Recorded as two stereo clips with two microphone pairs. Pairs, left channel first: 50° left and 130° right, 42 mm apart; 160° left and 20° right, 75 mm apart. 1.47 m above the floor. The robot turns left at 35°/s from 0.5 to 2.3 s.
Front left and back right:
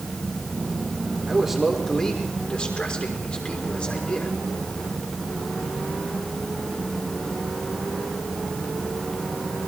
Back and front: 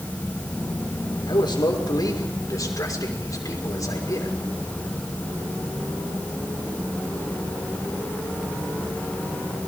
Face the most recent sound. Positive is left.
turn(degrees=120)